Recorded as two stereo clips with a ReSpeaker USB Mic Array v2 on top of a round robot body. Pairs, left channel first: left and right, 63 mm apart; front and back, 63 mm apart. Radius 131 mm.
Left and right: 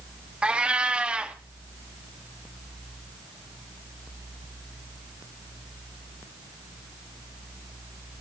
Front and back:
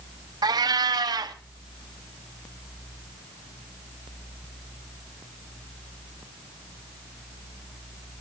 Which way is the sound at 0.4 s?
165° right.